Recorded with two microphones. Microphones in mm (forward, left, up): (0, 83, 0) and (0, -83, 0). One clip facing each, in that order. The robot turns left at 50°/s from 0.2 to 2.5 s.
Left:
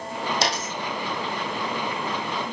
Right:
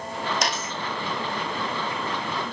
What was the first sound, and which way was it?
A dropped coin, 30° left (ahead or behind).